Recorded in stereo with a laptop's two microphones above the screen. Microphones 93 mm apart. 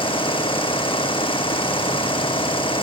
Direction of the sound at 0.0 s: 70° left (ahead or behind).